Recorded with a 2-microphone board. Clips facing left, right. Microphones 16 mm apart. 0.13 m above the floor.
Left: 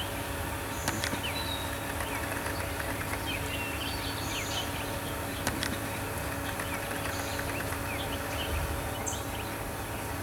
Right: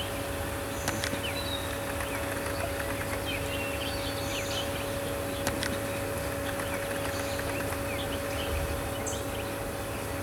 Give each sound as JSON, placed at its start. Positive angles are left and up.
{"t": 0.0, "sound": "an insect", "side_deg": -5, "distance_m": 6.5}